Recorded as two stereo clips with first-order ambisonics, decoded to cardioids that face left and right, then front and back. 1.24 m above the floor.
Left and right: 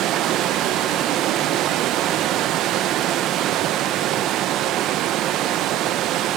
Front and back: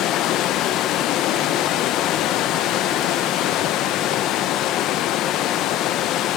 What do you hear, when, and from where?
0.0 s running water: 45° right, 1.0 m